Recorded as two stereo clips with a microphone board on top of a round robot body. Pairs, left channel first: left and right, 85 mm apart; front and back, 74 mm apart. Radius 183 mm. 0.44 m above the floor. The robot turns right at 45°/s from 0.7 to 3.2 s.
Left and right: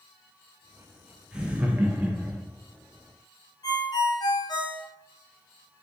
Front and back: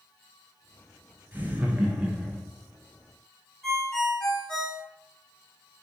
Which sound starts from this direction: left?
A ringtone, at 3.6 s.